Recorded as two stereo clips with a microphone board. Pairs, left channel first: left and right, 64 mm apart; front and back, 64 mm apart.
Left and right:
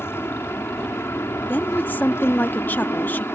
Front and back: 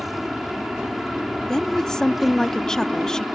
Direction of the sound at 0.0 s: 95° left.